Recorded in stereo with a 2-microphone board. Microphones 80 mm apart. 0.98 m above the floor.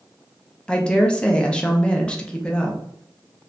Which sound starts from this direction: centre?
A woman speaking, at 0.7 s.